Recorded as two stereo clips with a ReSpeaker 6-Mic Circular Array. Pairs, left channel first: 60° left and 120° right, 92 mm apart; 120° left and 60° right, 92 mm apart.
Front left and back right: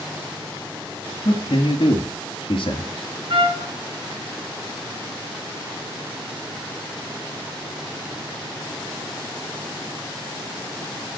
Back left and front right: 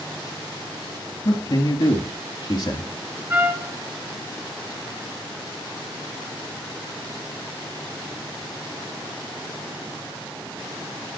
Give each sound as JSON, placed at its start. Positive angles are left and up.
{"t": 1.2, "sound": "a man speaking", "azimuth_deg": 90, "distance_m": 3.0}
{"t": 3.3, "sound": "a trumpet", "azimuth_deg": -125, "distance_m": 2.5}